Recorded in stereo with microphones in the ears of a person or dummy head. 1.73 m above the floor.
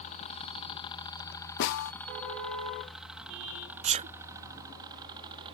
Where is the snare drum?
60° left (ahead or behind).